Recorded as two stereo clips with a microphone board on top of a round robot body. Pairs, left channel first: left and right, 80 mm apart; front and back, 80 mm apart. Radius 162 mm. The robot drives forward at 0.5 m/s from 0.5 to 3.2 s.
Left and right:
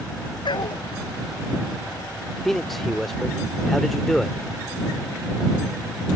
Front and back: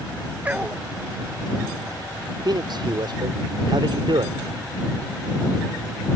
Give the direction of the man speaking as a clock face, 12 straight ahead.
6 o'clock.